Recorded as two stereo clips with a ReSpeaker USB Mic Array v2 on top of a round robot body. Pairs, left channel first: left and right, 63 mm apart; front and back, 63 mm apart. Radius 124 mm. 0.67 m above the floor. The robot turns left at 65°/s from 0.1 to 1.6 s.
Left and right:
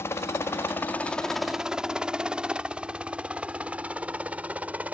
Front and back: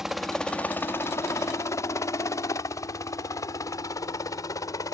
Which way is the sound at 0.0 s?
100° left.